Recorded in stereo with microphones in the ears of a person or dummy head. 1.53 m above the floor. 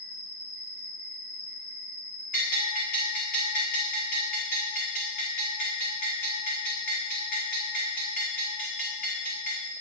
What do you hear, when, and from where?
0.0 s an insect: 60° left (ahead or behind), 2.5 m
2.3 s a bell: 45° left (ahead or behind), 1.8 m